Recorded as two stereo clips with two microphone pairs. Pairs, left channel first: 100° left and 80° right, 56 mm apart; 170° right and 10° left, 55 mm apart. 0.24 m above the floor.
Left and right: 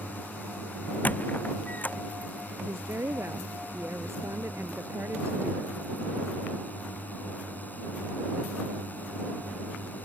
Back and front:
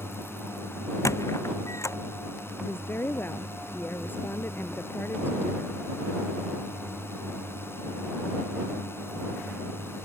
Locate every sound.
0.0 s a drone: 155° left
1.1 s a squeak: 160° left
2.6 s a woman speaking: 120° right